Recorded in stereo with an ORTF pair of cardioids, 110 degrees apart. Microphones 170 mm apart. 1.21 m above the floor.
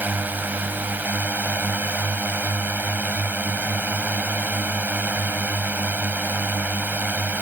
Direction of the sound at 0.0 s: 10° right.